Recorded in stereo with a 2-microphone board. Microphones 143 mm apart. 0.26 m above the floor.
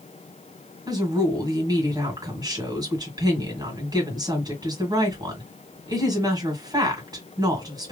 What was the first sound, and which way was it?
A woman speaking, 30° right (ahead or behind).